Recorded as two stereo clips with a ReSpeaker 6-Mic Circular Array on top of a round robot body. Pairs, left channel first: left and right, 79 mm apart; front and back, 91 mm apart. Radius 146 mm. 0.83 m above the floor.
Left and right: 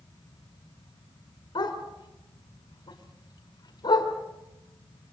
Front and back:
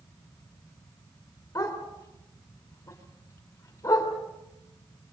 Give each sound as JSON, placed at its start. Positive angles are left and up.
{"t": 1.6, "sound": "a dog barking", "azimuth_deg": 55, "distance_m": 3.0}